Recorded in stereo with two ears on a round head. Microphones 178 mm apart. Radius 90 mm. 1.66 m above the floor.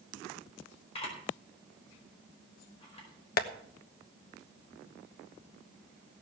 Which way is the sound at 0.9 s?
30° left (ahead or behind).